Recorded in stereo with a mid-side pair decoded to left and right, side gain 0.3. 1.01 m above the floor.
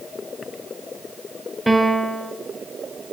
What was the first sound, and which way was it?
A piano, 5° right.